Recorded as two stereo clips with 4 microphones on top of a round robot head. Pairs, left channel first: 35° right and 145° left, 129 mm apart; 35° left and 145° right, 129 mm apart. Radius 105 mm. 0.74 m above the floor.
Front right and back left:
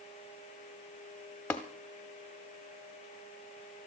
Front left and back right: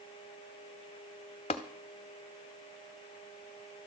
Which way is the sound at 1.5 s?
40° left.